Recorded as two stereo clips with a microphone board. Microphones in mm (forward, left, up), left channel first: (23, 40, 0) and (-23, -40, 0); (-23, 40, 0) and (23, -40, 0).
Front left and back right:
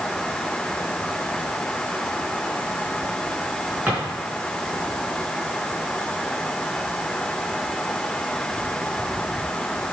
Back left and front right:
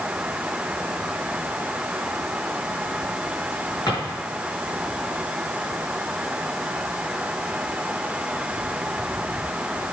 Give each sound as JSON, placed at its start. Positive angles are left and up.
{"t": 3.9, "sound": "a drawer", "azimuth_deg": 170, "distance_m": 4.5}